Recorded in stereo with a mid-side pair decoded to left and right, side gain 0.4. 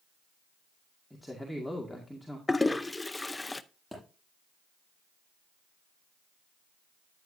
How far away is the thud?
About 6 m.